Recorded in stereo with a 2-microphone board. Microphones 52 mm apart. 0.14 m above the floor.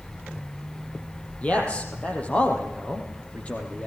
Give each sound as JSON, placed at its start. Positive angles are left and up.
{"t": 1.4, "sound": "a man speaking", "side_deg": 25, "distance_m": 4.0}